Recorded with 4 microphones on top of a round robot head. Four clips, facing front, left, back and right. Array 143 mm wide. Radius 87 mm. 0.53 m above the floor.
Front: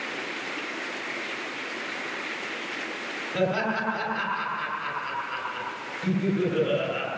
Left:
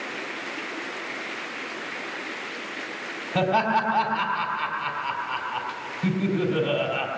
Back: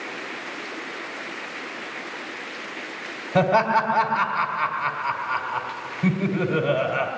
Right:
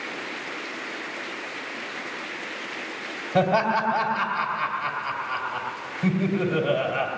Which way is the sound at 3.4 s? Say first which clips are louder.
Right 1 dB, back 7 dB; 140° right.